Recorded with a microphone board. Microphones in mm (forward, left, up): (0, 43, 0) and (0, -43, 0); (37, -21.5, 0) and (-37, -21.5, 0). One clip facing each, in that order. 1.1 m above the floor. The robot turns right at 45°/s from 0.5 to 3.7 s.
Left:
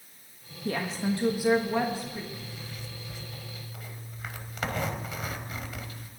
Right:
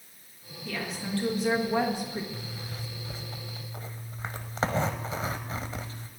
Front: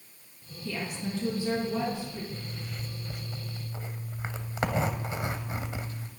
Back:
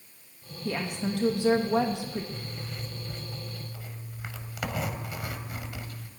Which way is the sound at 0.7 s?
135° left.